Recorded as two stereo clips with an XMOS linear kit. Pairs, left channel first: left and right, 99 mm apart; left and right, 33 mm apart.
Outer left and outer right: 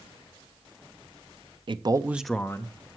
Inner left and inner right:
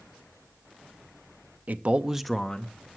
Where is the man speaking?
55° right (ahead or behind), 0.7 m; by 2.9 s 40° left (ahead or behind), 0.9 m.